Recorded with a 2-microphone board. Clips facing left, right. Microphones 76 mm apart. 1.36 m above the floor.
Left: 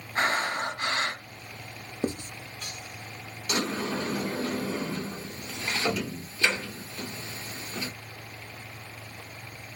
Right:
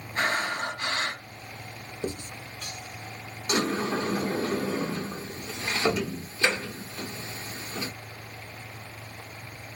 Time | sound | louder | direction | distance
0.1 | breathing | left 1 dB | 35° left (ahead or behind) | 1.9 m
2.0 | writing | left 3 dB | 45° left (ahead or behind) | 0.5 m
3.5 | a sliding door | right 3 dB | 30° right (ahead or behind) | 0.9 m